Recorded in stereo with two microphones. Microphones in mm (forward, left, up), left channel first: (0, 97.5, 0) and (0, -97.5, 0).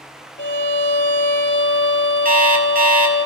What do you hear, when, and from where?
0.4 s a violin: 70° left (ahead or behind), 2.5 m
2.2 s an alarm clock: 50° right (ahead or behind), 2 m